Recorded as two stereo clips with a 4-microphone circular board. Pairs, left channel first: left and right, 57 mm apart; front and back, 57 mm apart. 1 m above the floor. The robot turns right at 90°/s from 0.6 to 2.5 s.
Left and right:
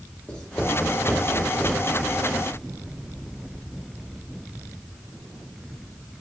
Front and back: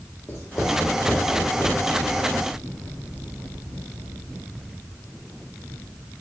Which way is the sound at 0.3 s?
20° left.